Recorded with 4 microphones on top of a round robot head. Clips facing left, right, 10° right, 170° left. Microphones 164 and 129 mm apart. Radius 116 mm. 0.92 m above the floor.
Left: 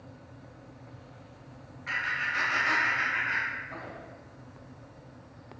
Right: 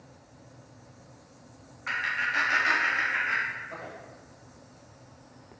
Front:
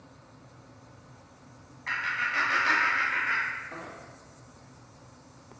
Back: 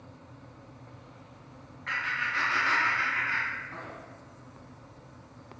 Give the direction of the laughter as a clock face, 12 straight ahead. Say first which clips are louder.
Right 2 dB, front 1 dB; 2 o'clock.